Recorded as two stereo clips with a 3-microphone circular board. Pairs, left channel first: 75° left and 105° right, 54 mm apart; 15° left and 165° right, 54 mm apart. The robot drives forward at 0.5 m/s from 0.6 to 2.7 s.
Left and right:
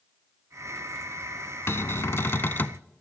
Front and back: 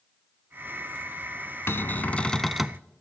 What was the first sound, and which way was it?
A cupboard door, 45° left.